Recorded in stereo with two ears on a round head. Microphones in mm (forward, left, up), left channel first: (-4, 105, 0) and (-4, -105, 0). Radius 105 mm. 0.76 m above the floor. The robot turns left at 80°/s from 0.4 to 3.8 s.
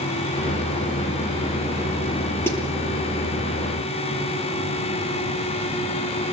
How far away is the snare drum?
About 7 m.